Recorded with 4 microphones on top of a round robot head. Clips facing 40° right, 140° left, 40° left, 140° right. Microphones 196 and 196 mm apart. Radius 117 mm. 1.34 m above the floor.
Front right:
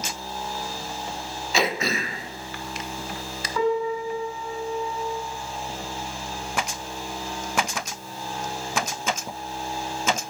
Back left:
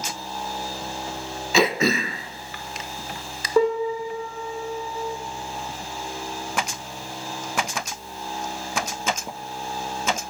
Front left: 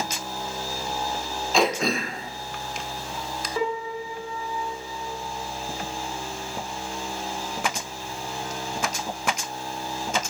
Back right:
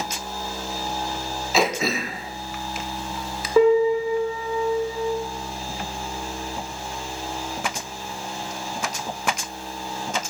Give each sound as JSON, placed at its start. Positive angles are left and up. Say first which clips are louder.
{"t": 1.5, "sound": "throat clearing", "louder": "back left 5 dB, even", "azimuth_deg": 135, "distance_m": 0.6}
{"t": 3.6, "sound": "a piano", "louder": "back left 3 dB, back right 14 dB", "azimuth_deg": -165, "distance_m": 2.5}